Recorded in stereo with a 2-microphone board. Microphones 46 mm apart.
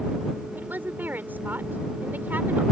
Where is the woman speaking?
45° right (ahead or behind).